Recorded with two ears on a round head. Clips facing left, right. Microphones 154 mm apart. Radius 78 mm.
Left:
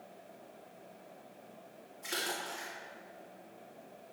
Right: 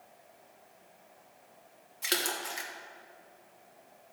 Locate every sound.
2.0 s a splash: 85° right, 1.8 m